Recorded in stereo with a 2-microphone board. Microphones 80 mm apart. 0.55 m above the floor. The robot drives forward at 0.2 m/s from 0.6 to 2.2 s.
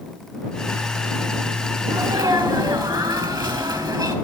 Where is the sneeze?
60° right (ahead or behind), 4 m.